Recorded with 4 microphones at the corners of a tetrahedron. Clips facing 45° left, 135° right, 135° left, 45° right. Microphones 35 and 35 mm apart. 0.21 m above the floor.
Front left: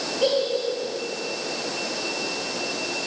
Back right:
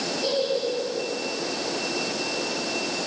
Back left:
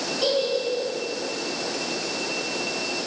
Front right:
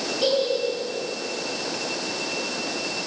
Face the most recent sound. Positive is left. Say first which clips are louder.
# front left 3 dB, front right 1 dB
turn(degrees=35)